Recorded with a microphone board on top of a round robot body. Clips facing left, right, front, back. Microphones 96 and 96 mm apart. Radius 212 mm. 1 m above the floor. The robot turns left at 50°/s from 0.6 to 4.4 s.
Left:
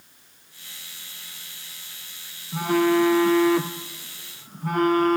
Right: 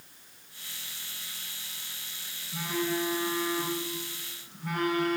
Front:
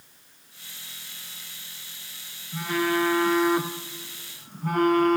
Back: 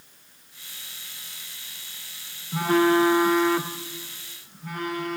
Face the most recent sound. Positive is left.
turn(degrees=40)